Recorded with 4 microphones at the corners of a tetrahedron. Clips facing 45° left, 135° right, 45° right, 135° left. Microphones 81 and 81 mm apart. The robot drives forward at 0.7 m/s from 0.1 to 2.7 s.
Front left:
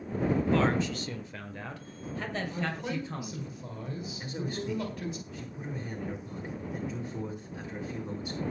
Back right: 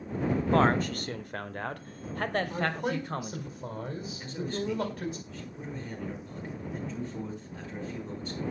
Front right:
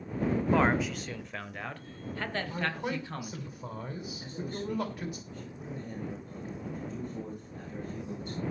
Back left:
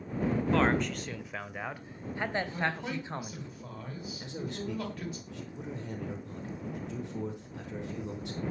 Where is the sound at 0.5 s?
115° right, 1.2 m; by 3.5 s 160° right, 2 m.